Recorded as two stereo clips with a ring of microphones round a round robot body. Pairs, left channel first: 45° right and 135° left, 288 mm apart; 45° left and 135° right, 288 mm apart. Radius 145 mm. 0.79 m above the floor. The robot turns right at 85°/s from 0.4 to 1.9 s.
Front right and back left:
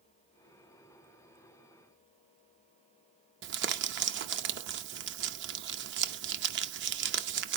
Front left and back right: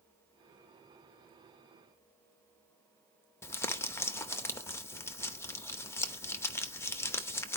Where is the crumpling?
120° left, 0.8 m.